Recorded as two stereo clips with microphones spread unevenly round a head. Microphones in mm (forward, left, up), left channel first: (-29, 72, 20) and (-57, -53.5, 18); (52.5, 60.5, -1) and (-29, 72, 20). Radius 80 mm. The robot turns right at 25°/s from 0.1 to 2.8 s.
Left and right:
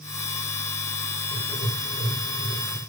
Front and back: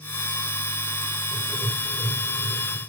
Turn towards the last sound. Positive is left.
turn(degrees=165)